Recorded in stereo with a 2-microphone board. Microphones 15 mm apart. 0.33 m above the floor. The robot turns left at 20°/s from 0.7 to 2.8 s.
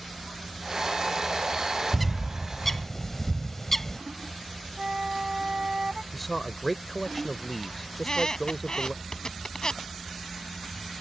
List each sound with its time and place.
1.9 s a bird: 5° left (ahead or behind); by 4.0 s 20° left (ahead or behind)
4.8 s a flute: 45° right (ahead or behind)
6.1 s a man speaking: 5° left (ahead or behind)
7.9 s a squeak: 50° left (ahead or behind)